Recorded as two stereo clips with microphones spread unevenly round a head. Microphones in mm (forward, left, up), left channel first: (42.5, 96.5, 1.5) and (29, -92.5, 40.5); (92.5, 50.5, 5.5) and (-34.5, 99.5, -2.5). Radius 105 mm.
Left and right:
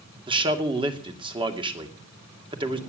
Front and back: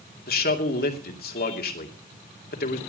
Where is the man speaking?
25° right, 2.5 m.